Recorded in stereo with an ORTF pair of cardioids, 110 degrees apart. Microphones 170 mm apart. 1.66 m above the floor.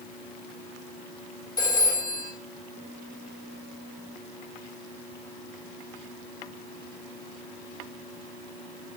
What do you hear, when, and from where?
1.6 s a phone ringing: 25° left, 3.5 m